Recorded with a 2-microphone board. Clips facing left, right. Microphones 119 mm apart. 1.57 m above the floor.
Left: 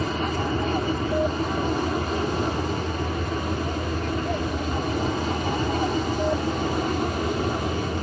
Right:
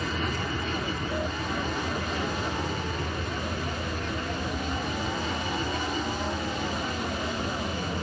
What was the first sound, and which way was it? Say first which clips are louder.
An aircraft: left 5 dB; 35° left (ahead or behind).